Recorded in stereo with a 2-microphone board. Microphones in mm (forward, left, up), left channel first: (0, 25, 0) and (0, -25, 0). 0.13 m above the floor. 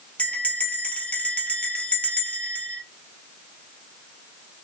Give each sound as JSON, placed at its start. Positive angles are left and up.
{"t": 0.2, "sound": "a bell", "side_deg": 30, "distance_m": 1.0}